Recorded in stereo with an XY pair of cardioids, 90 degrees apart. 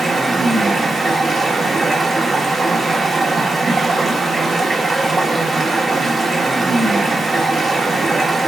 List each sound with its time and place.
0.0 s running water: 30° right, 1.0 m